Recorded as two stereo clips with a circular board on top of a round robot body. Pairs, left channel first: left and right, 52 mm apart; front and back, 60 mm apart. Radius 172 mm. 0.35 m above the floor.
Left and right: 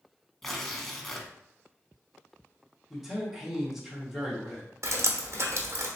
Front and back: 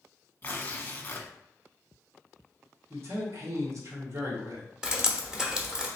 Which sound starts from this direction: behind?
A man speaking, at 2.9 s.